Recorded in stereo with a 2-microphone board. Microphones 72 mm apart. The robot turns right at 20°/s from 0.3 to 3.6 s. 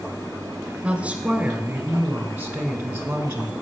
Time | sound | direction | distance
0.8 | a woman speaking | 15° right (ahead or behind) | 1.1 m